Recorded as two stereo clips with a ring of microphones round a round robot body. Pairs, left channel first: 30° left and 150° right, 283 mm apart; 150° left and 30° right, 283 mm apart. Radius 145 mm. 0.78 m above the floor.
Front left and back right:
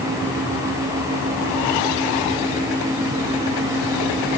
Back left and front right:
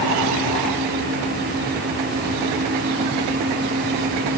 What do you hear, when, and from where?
Only background noise.